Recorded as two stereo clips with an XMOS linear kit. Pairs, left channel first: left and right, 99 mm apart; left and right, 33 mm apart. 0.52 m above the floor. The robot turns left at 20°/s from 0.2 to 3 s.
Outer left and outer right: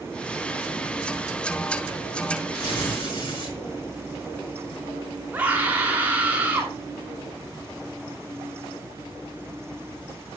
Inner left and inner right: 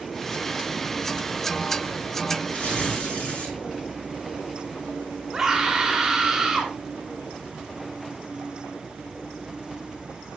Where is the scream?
15° right (ahead or behind), 1.3 m.